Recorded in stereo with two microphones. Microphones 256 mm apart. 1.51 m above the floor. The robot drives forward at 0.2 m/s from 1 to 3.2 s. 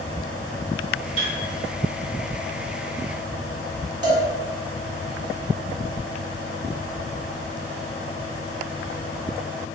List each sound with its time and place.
1.2 s a piano: 25° left (ahead or behind), 1.3 m
4.0 s a cowbell: 75° right (ahead or behind), 1.2 m